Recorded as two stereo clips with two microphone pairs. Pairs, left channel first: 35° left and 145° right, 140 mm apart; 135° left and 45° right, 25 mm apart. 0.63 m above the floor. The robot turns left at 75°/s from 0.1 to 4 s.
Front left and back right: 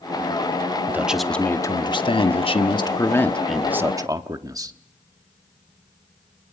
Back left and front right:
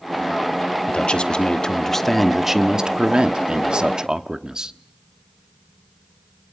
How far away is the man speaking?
About 1.1 m.